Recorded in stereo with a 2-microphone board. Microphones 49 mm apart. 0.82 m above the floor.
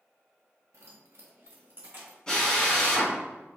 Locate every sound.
0.7 s keys jangling: 75° right (ahead or behind), 0.7 m; by 2.2 s 40° right (ahead or behind), 1.1 m
2.3 s a drill: 15° left (ahead or behind), 1.2 m